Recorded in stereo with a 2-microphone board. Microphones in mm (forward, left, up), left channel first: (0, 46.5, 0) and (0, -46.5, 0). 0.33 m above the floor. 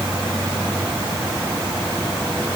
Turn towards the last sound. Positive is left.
No sound to turn to.